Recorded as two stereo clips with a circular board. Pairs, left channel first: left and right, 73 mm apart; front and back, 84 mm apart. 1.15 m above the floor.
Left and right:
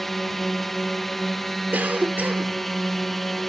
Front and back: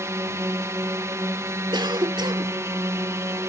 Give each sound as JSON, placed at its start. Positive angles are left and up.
{"t": 0.0, "sound": "a drone", "azimuth_deg": 175}
{"t": 1.7, "sound": "a cough", "azimuth_deg": -155}